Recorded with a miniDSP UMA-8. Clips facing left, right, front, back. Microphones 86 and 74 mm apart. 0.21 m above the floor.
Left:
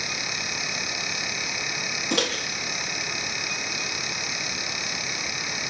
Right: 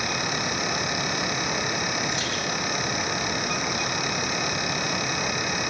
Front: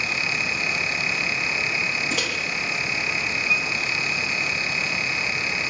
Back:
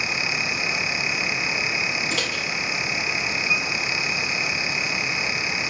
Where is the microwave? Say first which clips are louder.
Left 4 dB, even; 85° left, 6 m.